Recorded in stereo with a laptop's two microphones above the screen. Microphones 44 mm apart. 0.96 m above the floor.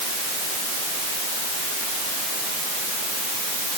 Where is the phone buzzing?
No phone buzzing in this recording.